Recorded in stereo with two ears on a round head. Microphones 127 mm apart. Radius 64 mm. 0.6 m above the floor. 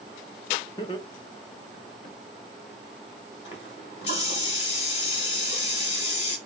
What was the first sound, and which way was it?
Laughter, 30° left (ahead or behind).